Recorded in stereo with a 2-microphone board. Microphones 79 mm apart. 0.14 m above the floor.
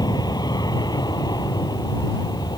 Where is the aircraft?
60° left (ahead or behind).